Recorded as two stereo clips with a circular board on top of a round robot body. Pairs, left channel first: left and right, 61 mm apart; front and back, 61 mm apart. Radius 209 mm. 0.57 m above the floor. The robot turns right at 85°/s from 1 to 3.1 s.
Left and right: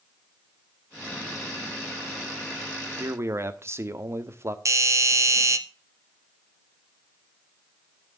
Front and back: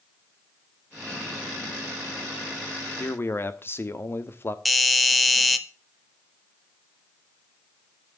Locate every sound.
3.0 s a man speaking: 55° right, 1.6 m; by 4.5 s 45° right, 1.6 m
4.7 s a doorbell: 90° right, 1.6 m